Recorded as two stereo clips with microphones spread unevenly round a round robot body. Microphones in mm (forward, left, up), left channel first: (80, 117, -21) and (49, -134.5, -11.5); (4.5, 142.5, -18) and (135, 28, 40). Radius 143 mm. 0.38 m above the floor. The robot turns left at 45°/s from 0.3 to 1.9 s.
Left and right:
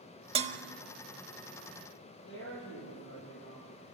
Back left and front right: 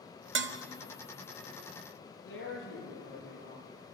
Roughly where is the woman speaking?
Behind left.